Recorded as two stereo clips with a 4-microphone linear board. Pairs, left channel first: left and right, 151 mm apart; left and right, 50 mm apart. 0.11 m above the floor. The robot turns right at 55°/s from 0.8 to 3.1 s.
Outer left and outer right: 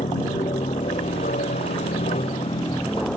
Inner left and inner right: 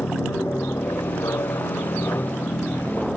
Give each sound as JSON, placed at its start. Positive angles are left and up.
{"t": 0.0, "sound": "an aircraft", "azimuth_deg": 45}